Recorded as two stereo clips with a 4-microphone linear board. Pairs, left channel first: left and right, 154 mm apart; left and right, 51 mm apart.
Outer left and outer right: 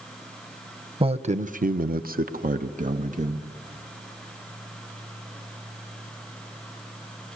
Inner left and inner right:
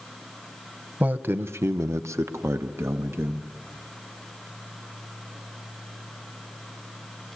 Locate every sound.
1.0 s a man speaking: 35° right (ahead or behind), 1.0 m; by 3.5 s 50° right (ahead or behind), 2 m